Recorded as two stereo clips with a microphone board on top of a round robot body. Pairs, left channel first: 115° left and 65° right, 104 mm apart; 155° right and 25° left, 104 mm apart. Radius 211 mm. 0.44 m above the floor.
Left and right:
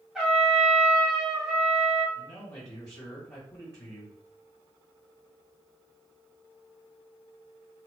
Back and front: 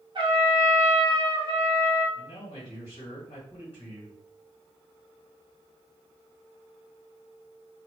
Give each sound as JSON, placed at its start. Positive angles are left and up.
{"t": 0.1, "sound": "a trumpet", "azimuth_deg": 15, "distance_m": 1.0}
{"t": 2.1, "sound": "a man speaking", "azimuth_deg": 175, "distance_m": 1.7}